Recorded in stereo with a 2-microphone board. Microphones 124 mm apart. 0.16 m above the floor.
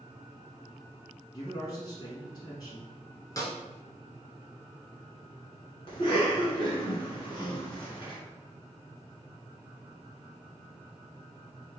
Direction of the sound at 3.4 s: 30° left (ahead or behind).